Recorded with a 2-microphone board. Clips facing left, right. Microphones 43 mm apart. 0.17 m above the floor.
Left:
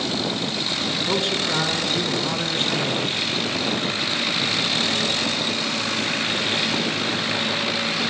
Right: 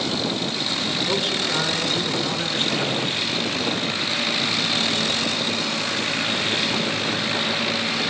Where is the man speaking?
15° left (ahead or behind), 1.4 m.